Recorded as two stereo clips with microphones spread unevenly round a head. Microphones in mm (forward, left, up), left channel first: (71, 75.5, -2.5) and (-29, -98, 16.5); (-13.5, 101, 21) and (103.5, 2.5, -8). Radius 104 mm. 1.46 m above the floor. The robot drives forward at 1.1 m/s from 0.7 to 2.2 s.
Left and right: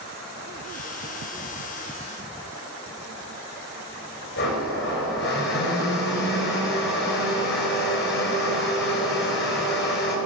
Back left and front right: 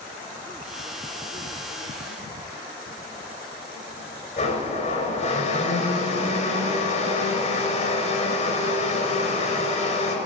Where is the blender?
100° left, 4 m.